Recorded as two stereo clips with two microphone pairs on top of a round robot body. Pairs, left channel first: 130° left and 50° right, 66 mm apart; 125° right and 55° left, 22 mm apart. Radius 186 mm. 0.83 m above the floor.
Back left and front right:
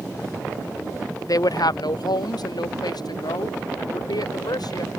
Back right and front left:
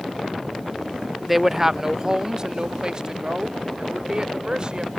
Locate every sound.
1.3 s a woman speaking: 145° left; by 4.9 s 110° left